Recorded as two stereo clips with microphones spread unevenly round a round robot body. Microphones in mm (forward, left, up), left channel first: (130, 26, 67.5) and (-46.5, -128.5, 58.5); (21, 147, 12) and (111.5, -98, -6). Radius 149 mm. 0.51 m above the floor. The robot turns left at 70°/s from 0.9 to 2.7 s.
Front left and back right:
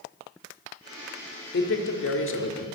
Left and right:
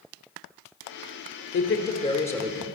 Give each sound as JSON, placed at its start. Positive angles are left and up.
{"t": 1.5, "sound": "a man speaking", "azimuth_deg": 80, "distance_m": 1.3}